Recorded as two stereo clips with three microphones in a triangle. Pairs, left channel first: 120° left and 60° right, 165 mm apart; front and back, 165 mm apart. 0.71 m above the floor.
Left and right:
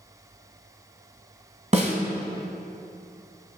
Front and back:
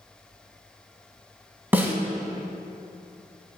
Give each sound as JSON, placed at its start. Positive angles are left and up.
{"t": 1.7, "sound": "a snare drum", "azimuth_deg": -100, "distance_m": 1.3}